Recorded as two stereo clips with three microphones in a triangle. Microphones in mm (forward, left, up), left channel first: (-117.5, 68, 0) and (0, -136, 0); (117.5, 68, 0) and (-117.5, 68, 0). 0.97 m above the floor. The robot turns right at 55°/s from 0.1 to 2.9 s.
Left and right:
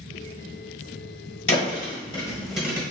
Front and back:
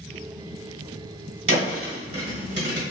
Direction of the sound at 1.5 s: 155° left.